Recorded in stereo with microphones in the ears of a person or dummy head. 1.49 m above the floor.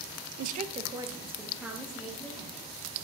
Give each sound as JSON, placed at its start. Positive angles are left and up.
{"t": 0.4, "sound": "a woman speaking", "side_deg": -55, "distance_m": 0.6}